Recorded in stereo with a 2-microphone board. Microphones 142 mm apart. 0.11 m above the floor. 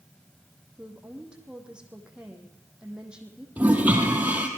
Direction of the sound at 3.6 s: 10° right (ahead or behind).